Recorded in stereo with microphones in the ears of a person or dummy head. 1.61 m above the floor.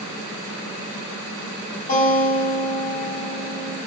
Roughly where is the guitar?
Left.